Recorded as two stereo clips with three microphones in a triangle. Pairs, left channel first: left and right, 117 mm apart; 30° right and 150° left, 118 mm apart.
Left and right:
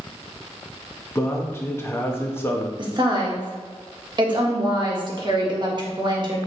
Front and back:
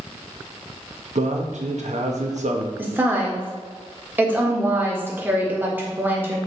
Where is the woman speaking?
135° right, 1.6 m.